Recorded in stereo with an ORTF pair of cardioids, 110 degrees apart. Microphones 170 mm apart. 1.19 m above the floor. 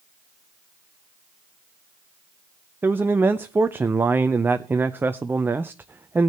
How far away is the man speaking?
About 0.6 m.